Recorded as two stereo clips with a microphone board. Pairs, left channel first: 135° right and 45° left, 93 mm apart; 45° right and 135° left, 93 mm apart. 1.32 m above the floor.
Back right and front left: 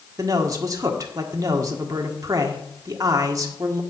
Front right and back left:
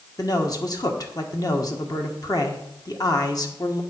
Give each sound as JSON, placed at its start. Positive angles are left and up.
{"t": 0.2, "sound": "a man speaking", "azimuth_deg": -5, "distance_m": 1.5}